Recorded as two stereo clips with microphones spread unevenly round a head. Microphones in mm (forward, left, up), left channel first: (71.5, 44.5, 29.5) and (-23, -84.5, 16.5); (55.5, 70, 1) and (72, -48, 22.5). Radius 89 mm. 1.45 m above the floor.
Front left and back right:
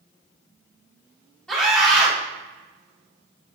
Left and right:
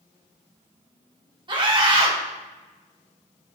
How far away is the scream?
About 3 m.